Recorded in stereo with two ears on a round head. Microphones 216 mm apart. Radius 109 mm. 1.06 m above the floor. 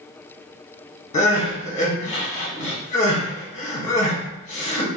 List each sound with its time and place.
1.1 s crying: 30° left (ahead or behind), 1.2 m